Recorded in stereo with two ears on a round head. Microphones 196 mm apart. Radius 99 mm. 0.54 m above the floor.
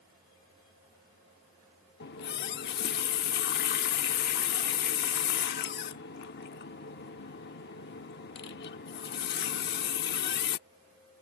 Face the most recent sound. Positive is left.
turn(degrees=50)  # may be behind; listen again after turning